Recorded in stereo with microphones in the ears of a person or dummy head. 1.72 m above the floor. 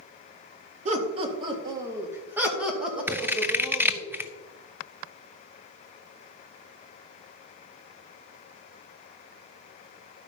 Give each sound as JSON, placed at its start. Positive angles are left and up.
{"t": 0.8, "sound": "laughter", "side_deg": -35, "distance_m": 2.0}
{"t": 3.1, "sound": "scissors", "side_deg": -5, "distance_m": 0.5}